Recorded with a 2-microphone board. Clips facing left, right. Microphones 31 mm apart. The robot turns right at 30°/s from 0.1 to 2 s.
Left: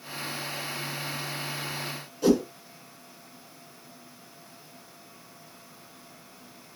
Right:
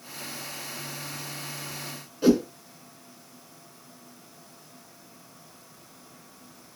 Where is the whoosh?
20° right (ahead or behind), 1.8 m.